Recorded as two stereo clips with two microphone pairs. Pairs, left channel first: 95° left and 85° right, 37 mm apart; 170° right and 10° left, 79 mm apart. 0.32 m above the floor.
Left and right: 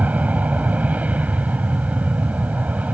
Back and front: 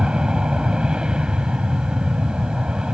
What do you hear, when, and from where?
0.0 s an aircraft: 65° right